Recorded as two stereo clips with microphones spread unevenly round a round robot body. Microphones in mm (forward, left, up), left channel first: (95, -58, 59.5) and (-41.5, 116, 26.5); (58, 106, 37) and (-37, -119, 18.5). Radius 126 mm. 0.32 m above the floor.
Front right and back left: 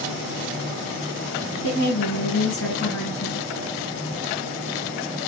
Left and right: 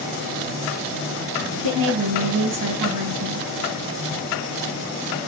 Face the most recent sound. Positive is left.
turn(degrees=-90)